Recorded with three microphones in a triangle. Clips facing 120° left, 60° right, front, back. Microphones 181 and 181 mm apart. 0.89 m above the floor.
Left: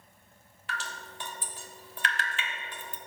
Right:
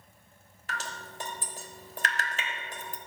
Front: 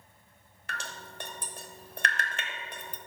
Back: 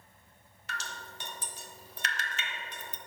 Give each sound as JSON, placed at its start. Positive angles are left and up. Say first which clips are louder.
{"t": 0.7, "sound": "dripping", "louder": "right 1 dB, front 1 dB", "azimuth_deg": -25, "distance_m": 1.1}